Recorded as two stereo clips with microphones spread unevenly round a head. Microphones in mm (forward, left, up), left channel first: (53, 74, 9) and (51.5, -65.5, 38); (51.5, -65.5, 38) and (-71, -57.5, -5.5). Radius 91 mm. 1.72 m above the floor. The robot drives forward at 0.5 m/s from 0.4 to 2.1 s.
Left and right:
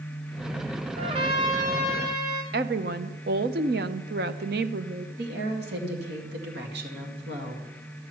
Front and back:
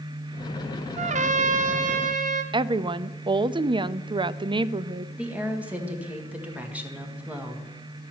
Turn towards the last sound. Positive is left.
turn(degrees=-105)